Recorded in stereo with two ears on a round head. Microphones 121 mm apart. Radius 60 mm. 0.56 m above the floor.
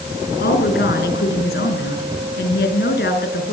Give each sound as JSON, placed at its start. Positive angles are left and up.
{"t": 0.4, "sound": "a woman speaking", "side_deg": 85, "distance_m": 6.0}